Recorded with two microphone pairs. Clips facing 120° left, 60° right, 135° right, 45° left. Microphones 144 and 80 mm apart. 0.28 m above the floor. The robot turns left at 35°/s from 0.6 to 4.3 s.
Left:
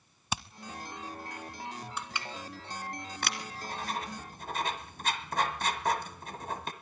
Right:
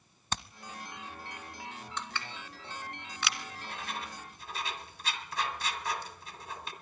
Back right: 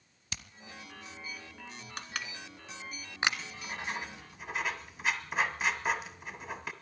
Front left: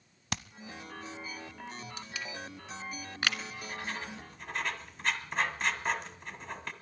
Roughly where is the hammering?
Ahead left.